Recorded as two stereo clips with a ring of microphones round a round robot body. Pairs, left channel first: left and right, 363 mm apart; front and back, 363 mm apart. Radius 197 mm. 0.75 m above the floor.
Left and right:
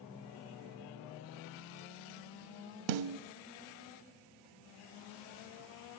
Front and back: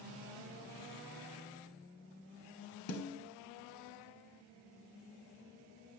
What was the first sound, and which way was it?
A snare drum, 60° right.